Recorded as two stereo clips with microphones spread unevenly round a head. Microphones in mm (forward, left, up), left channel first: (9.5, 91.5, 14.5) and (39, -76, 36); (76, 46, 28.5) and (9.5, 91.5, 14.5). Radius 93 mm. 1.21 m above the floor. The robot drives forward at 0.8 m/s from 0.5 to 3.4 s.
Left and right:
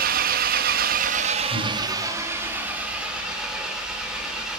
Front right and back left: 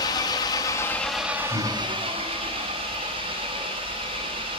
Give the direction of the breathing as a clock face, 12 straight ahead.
11 o'clock.